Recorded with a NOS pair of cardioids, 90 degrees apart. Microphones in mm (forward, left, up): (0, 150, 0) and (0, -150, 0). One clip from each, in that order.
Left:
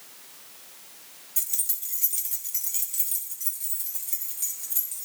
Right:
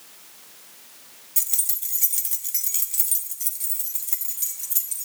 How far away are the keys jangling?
About 0.9 m.